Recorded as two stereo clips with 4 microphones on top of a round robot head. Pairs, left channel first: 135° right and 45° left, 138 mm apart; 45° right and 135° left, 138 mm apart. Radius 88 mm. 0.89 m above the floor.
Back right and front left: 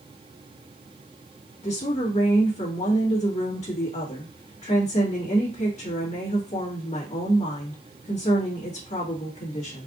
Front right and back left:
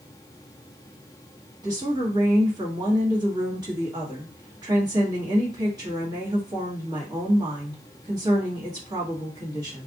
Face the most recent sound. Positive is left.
turn(degrees=-165)